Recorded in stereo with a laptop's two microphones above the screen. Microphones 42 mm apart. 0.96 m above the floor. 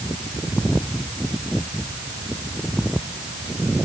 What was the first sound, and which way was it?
Only background noise.